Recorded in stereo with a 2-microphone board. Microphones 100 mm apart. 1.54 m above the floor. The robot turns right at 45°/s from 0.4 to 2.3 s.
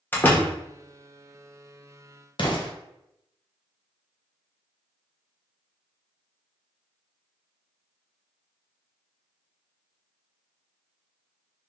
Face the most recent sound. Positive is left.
turn(degrees=55)  # may be behind; listen again after turning